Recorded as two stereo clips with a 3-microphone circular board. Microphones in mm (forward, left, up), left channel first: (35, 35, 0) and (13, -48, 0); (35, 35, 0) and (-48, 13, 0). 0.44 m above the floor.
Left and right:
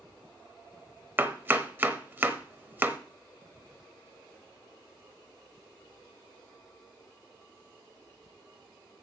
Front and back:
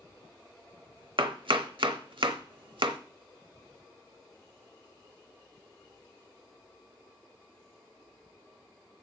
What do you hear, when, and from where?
1.2 s chopping: 170° right, 0.8 m